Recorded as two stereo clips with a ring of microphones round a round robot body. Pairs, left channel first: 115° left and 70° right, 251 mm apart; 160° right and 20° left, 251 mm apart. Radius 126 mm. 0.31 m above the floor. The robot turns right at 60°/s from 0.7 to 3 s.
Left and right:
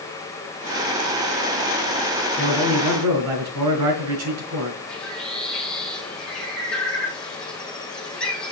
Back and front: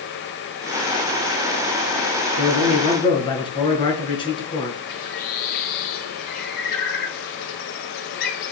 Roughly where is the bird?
Behind.